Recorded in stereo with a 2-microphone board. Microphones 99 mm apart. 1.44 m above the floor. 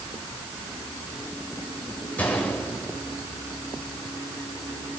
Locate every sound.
2.2 s a gunshot: 15° left (ahead or behind), 7.5 m